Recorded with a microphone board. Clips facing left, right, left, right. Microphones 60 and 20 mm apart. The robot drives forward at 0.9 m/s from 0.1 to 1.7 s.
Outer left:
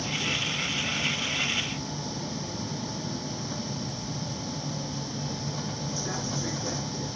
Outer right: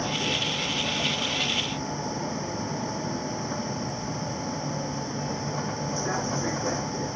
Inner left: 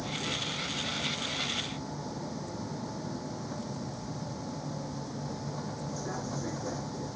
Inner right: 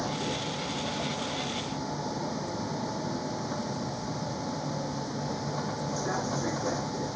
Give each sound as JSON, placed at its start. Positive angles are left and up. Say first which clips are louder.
{"t": 0.0, "sound": "a vehicle", "louder": "outer right 3 dB, inner right 2 dB", "side_deg": -30}